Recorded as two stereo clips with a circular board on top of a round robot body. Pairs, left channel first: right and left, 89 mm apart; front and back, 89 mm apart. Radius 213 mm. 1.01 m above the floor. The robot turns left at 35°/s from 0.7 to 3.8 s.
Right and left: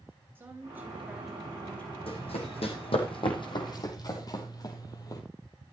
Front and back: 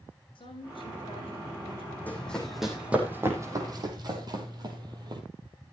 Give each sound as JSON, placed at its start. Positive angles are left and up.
{"t": 0.3, "sound": "a woman speaking", "azimuth_deg": 20, "distance_m": 8.0}
{"t": 2.1, "sound": "running footsteps", "azimuth_deg": -75, "distance_m": 4.0}